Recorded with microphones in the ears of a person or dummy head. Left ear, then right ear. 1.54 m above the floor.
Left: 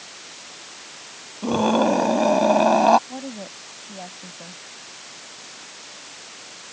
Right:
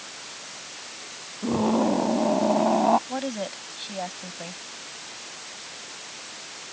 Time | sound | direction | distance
1.4 | a scream | 80° left | ?
3.1 | a woman speaking | 60° right (ahead or behind) | ?